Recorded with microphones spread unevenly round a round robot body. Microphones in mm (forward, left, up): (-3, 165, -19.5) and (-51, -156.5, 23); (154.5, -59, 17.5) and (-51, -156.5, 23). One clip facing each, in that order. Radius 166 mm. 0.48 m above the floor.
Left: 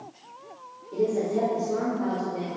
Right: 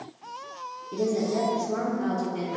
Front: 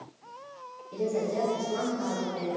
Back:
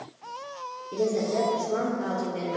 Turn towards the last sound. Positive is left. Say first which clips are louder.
# left 1 dB, back 3 dB
turn(degrees=-140)